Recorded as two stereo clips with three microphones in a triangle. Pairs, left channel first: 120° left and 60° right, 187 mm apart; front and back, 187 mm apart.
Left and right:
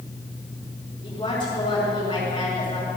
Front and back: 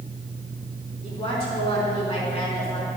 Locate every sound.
1.0 s a woman speaking: 65° left, 3.5 m